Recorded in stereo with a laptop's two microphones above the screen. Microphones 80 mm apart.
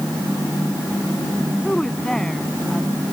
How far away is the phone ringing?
I don't hear a phone ringing.